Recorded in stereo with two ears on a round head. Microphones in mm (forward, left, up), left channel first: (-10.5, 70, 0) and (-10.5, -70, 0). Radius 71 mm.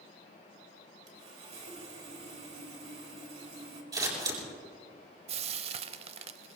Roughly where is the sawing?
Right.